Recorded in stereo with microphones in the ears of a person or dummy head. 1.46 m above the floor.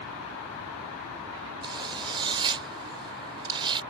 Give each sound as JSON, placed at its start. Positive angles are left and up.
{"t": 1.6, "sound": "a zipper", "side_deg": -30}